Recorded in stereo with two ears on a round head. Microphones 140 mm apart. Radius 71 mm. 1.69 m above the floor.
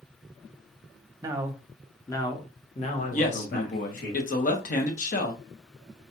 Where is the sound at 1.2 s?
25° right (ahead or behind), 0.9 m; by 4.1 s 65° left (ahead or behind), 2.0 m.